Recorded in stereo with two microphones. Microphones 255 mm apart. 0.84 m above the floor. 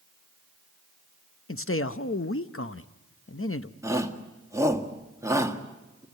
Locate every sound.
1.5 s a man speaking: 55° left (ahead or behind), 0.8 m
3.8 s a shout: 10° right (ahead or behind), 1.9 m